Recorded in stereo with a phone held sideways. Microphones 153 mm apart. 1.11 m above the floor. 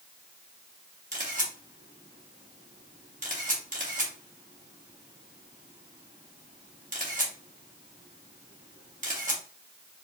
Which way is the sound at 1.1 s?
50° right (ahead or behind).